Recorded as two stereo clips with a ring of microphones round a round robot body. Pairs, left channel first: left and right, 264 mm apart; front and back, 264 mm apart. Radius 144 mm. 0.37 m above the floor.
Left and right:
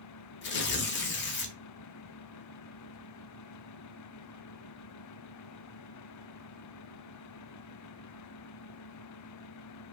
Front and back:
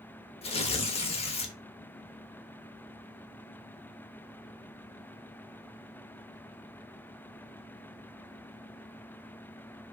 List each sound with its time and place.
0.4 s tearing paper: 60° left, 0.5 m